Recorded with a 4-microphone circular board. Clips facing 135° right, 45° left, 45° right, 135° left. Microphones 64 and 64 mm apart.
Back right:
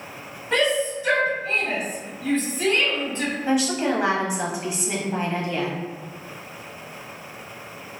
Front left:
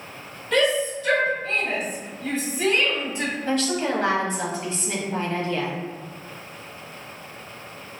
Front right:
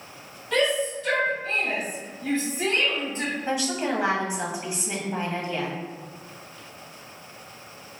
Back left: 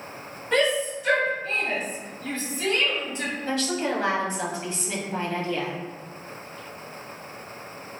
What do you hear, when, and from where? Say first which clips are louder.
0.5 s a shout: front left 1 dB, back left 1 dB; straight behind, 1.3 m; by 3.3 s 15° right, 1.5 m
3.5 s a woman speaking: back right 2 dB, back left 1 dB; 85° right, 0.9 m